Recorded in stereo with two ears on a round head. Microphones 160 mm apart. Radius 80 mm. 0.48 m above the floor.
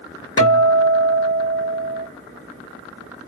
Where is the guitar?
30° left (ahead or behind), 1.9 m.